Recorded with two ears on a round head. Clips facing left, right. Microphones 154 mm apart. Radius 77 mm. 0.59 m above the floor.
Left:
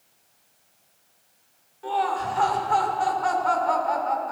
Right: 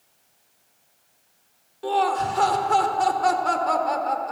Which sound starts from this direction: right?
Laughter, at 1.8 s.